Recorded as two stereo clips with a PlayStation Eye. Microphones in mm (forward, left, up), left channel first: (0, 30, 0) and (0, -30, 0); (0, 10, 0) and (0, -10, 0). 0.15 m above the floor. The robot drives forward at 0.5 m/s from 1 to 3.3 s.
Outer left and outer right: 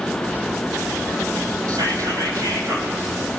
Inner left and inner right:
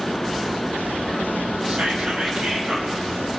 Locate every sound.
1.7 s whispering: 70° right (ahead or behind), 4.5 m; by 3.0 s 65° right (ahead or behind), 4.5 m